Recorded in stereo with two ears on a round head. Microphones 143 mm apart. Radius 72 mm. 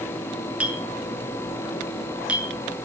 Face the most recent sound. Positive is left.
turn(degrees=-5)  # may be behind; listen again after turning